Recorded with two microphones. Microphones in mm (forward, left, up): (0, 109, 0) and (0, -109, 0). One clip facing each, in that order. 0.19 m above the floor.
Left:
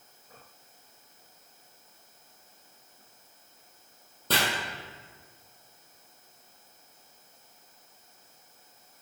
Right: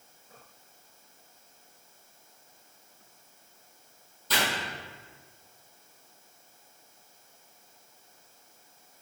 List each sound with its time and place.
4.3 s chopping: 65° left (ahead or behind), 3 m